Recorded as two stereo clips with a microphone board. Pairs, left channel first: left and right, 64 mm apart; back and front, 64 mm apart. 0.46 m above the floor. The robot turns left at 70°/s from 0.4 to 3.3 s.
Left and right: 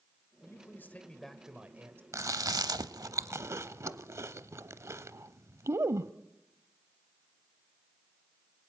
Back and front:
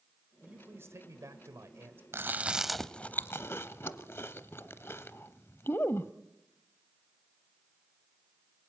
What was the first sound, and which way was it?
A man speaking, 65° left.